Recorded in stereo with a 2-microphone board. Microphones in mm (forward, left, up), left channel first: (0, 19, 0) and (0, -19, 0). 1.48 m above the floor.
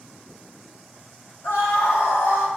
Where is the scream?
80° left, 2 m; by 2.5 s 70° left (ahead or behind), 1.2 m.